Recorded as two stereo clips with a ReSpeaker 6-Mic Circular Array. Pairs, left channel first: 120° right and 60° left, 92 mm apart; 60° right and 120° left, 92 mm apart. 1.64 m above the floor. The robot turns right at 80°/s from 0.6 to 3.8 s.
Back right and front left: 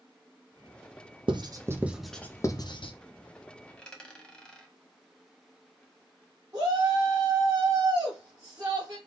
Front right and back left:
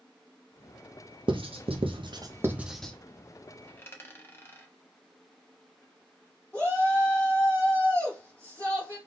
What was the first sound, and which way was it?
Writing, 90° left.